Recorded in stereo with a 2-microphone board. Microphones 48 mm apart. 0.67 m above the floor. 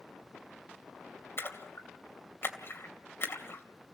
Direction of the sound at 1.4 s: 60° left (ahead or behind).